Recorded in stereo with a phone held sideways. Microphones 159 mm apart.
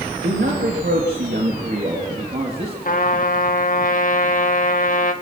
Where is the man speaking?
75° right (ahead or behind), 3.5 m; by 2.8 s 35° right (ahead or behind), 3.5 m.